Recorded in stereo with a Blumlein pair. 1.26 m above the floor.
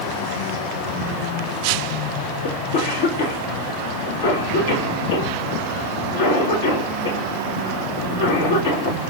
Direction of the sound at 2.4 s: 65° left.